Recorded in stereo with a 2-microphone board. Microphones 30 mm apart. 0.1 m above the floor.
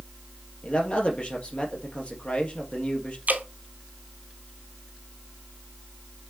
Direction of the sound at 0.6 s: 40° left (ahead or behind).